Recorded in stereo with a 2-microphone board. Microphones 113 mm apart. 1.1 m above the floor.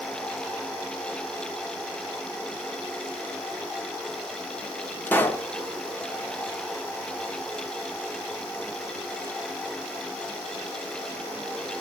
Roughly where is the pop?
Centre.